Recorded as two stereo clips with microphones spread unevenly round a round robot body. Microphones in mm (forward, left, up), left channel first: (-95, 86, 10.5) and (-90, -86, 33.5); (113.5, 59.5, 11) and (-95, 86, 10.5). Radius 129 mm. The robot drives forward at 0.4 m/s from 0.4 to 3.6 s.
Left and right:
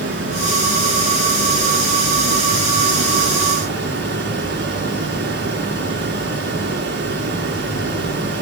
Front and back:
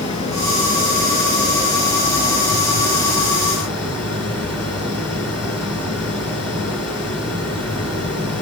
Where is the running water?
75° right, 4.5 m; by 8.4 s 90° right, 4.5 m.